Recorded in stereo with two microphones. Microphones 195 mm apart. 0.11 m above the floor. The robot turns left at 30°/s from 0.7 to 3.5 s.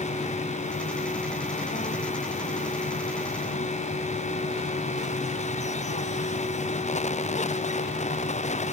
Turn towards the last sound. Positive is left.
No sound to turn to.